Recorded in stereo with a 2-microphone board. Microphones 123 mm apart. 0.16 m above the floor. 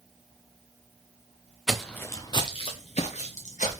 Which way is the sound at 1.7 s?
5° right (ahead or behind).